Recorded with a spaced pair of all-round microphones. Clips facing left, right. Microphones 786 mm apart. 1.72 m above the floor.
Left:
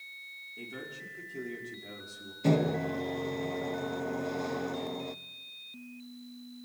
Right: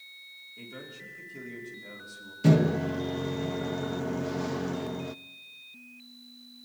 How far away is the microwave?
About 0.6 m.